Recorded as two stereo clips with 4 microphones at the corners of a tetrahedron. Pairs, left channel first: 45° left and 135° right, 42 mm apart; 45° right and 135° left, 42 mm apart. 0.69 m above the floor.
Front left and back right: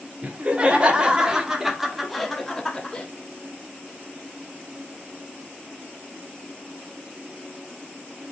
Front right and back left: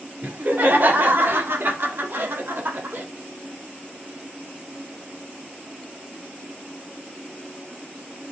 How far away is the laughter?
About 2 m.